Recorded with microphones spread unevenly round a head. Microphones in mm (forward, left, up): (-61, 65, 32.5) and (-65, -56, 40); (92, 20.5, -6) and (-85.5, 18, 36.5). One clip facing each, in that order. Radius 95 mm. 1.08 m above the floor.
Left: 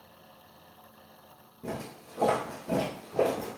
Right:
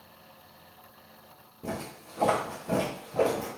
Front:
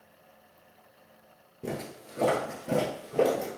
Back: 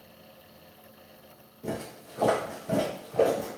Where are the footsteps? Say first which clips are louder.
Right 1 dB, back 1 dB; 25° right, 1.2 m; by 3.5 s 40° left, 1.6 m.